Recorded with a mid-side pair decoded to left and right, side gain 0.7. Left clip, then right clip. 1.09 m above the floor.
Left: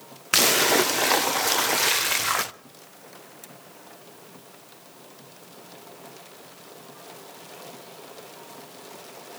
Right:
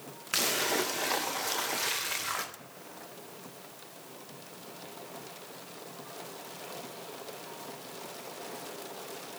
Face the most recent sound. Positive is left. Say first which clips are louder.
# left 10 dB
turn(degrees=40)